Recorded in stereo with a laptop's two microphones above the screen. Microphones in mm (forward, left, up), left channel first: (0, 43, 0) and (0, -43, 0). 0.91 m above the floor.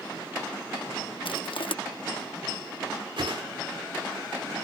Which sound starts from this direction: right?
A whoosh, at 3.2 s.